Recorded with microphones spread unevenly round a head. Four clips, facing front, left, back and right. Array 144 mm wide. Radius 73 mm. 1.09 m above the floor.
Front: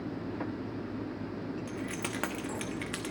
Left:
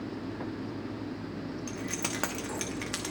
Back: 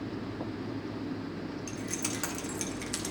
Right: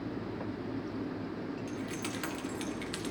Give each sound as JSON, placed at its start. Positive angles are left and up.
{"t": 1.7, "sound": "keys jangling", "azimuth_deg": 65, "distance_m": 1.2}